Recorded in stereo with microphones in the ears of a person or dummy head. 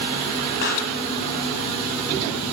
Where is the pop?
55° left (ahead or behind), 1.1 m.